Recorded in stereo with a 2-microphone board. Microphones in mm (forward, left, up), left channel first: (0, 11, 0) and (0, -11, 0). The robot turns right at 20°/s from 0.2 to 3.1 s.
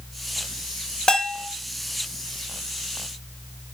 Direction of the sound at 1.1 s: 35° left (ahead or behind).